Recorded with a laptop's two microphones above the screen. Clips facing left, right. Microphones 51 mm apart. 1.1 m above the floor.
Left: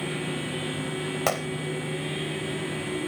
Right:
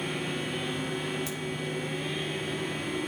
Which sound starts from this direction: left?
A gunshot, at 1.3 s.